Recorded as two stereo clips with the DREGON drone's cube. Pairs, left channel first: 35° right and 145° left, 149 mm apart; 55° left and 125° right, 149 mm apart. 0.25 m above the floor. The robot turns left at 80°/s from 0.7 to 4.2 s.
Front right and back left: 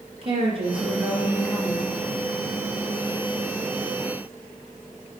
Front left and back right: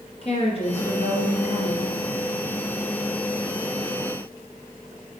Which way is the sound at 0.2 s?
100° left.